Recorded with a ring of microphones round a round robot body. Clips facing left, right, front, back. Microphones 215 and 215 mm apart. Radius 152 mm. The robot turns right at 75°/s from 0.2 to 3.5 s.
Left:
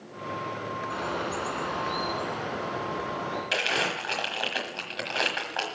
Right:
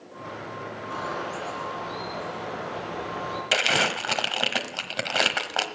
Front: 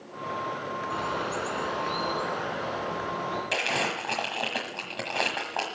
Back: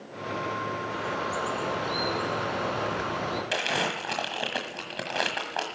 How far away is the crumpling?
About 1.3 m.